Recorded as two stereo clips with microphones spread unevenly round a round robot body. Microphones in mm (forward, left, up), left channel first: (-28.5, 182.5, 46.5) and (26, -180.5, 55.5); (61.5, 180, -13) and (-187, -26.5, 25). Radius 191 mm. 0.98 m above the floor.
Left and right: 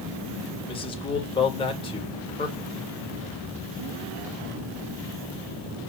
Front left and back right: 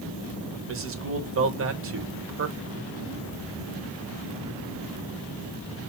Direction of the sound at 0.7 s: 170° left.